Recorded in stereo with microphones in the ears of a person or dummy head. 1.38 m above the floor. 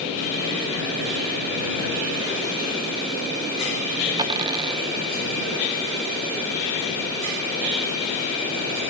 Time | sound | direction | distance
4.2 | a dropped coin | 25° right (ahead or behind) | ?